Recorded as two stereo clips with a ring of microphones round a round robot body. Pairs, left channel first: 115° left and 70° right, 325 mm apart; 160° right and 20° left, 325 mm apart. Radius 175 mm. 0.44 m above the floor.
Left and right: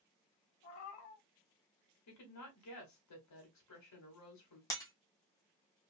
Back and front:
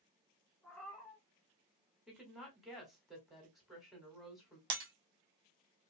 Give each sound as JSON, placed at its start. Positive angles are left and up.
{"t": 0.6, "sound": "a cat meowing", "azimuth_deg": 115, "distance_m": 0.8}
{"t": 2.1, "sound": "a woman speaking", "azimuth_deg": 110, "distance_m": 1.6}
{"t": 4.7, "sound": "breaking glass", "azimuth_deg": 35, "distance_m": 1.1}